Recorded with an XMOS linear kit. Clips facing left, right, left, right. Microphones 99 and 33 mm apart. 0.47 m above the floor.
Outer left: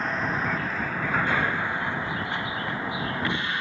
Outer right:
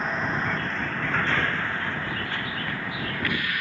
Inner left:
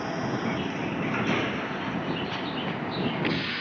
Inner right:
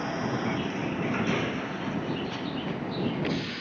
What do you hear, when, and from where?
0.0 s a vehicle: centre (ahead or behind); by 3.6 s 25° left (ahead or behind)